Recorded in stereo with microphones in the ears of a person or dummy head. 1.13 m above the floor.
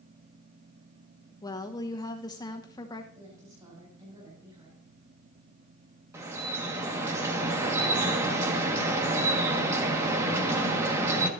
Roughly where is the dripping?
Centre.